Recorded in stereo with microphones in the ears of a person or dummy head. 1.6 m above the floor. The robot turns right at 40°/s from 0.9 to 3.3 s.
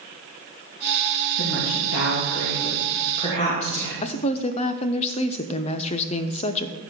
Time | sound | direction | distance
1.4 | a woman speaking | 65° left | 2.5 m
4.0 | a woman speaking | 35° left (ahead or behind) | 0.7 m